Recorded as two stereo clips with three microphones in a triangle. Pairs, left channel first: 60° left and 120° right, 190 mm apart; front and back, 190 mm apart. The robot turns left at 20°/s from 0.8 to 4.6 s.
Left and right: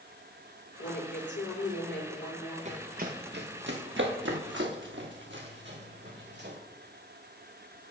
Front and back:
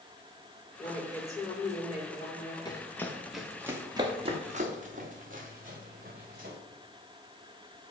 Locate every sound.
0.8 s a woman speaking: 75° left, 6 m; by 2.5 s 40° left, 6 m
2.6 s running footsteps: 65° right, 1.9 m; by 6.5 s 145° right, 3.5 m